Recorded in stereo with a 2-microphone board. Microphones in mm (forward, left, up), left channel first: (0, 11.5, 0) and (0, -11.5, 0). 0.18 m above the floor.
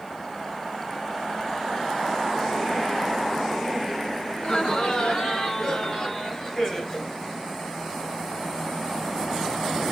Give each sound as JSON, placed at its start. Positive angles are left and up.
{"t": 4.3, "sound": "laughter", "side_deg": 50, "distance_m": 1.9}